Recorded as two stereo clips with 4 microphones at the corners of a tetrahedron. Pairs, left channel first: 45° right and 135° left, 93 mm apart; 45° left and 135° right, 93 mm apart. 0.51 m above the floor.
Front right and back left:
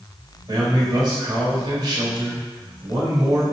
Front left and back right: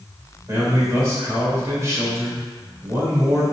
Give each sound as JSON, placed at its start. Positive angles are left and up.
{"t": 0.5, "sound": "a man speaking", "azimuth_deg": 170, "distance_m": 1.8}